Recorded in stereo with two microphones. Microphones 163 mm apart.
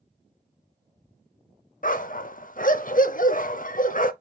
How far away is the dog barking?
About 0.6 m.